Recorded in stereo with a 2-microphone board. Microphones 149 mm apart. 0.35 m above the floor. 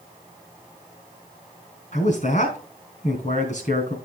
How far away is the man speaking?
About 3.5 m.